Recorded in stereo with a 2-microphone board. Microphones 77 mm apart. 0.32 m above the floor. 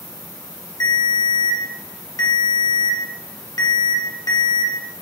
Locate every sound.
0.8 s a ringtone: 50° left (ahead or behind), 0.7 m